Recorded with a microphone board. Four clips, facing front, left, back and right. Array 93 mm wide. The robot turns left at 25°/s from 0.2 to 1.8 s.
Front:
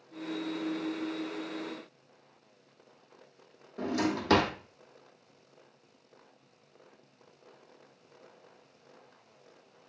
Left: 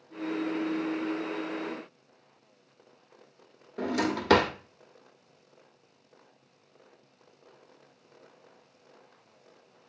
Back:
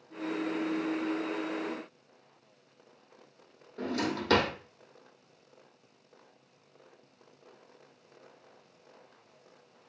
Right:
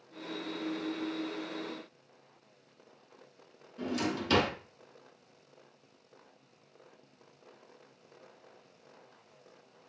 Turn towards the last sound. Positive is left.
turn(degrees=80)